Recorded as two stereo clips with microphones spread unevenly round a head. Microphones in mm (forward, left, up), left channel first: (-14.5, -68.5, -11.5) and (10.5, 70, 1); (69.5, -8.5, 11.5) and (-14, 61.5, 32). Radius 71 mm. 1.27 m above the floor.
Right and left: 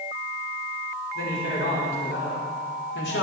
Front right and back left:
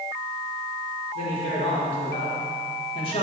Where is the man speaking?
90° right, 5 m; by 3.2 s 85° right, 3.5 m.